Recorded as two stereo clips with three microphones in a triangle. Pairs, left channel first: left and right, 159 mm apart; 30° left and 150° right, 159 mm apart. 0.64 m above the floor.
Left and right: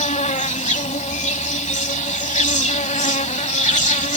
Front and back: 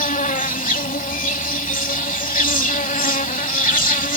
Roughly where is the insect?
Ahead left.